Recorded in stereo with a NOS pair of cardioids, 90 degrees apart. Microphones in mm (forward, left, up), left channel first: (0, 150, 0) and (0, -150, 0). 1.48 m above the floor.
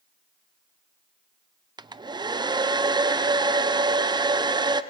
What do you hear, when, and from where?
1.8 s a hair dryer: 15° right, 0.7 m